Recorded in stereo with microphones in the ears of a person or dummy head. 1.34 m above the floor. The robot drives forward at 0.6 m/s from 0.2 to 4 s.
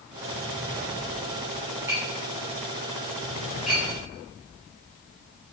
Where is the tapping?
10° right (ahead or behind), 0.7 m; by 3.8 s 5° right (ahead or behind), 1.7 m.